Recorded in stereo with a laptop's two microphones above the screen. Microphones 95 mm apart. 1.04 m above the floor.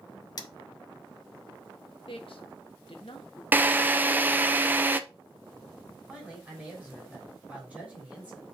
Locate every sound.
0.4 s cutlery clinking: 45° left (ahead or behind), 1.1 m
2.1 s a man speaking: 70° left (ahead or behind), 1.3 m
3.5 s a drill: 20° right (ahead or behind), 0.6 m
6.1 s a man speaking: 15° right (ahead or behind), 3.5 m